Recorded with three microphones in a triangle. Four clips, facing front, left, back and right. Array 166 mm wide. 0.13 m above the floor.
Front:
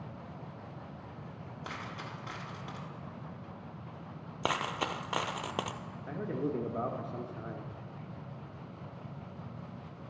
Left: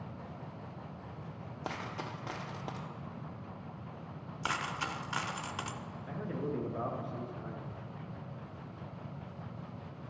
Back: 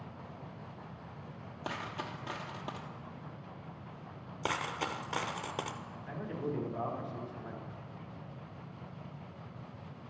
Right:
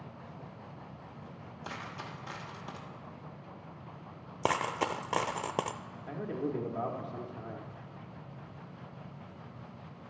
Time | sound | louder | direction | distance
1.6 | a dropped coin | left 3 dB, back 4 dB | 110° left | 1.2 m
4.4 | a dropped coin | right 6 dB, front 2 dB | 70° right | 0.5 m
6.1 | a man speaking | right 3 dB, front 4 dB | 5° right | 1.5 m